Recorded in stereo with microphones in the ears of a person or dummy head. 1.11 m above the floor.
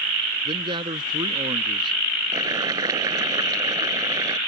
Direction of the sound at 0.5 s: 25° right (ahead or behind).